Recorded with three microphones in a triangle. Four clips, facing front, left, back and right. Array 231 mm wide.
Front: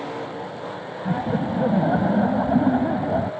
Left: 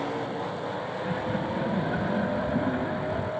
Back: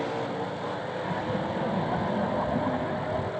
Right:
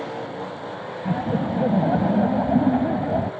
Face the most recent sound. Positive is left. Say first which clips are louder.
# right 8 dB, front 8 dB
turn(degrees=-50)